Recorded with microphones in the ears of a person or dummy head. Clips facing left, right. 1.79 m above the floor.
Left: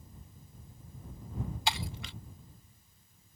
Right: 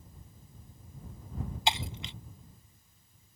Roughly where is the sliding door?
I don't hear a sliding door.